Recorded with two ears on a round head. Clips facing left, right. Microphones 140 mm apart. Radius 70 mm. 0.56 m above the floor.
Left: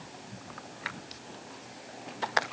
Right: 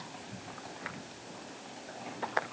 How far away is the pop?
I don't hear a pop.